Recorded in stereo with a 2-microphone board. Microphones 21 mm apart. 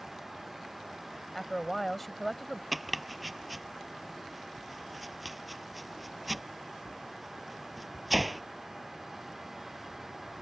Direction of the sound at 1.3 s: 5° left (ahead or behind).